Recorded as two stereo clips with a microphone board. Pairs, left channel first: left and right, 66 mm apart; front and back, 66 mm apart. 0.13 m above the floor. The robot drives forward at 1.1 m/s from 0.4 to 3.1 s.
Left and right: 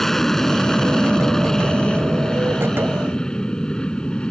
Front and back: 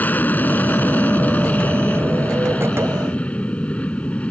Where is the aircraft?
10° left; by 4.3 s 35° left.